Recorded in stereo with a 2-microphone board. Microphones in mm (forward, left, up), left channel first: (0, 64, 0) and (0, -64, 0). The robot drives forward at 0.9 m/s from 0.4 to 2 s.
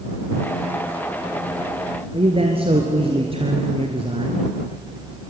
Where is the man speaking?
50° right (ahead or behind), 2.5 m.